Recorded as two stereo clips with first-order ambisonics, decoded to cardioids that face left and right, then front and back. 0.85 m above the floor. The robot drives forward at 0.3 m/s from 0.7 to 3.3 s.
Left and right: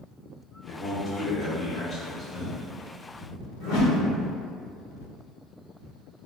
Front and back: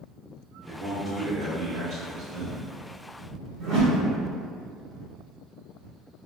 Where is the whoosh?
130° left, 0.9 m.